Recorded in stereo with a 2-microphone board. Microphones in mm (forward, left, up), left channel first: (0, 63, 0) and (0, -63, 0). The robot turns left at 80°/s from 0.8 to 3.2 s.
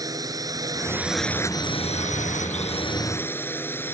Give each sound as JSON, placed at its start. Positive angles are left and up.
{"t": 0.0, "sound": "a drone", "azimuth_deg": -150}